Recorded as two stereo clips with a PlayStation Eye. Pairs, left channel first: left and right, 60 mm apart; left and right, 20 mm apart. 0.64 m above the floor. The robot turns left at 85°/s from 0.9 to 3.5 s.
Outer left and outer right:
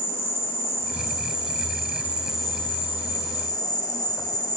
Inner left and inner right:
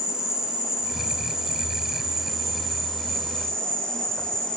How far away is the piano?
I don't hear a piano.